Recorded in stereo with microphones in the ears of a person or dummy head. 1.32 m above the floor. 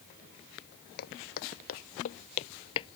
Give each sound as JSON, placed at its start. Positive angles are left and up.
{"t": 1.0, "sound": "footsteps", "side_deg": 55}